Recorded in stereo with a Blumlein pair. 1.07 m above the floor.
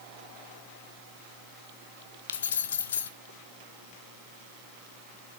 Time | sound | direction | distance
2.3 | keys jangling | 65° left | 0.7 m